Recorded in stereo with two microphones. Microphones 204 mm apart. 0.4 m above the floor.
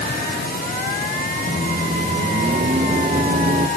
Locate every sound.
1.5 s a microwave: 40° right (ahead or behind)